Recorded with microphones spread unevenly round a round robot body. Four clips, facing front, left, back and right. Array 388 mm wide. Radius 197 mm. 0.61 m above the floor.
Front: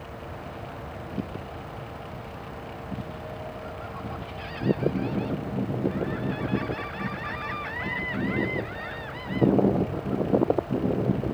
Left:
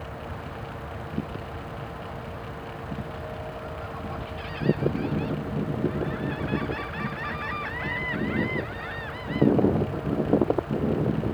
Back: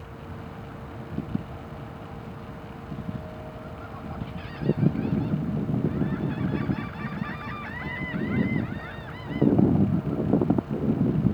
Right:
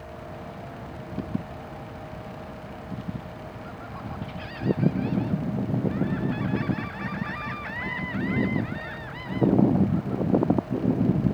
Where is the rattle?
No rattle in this recording.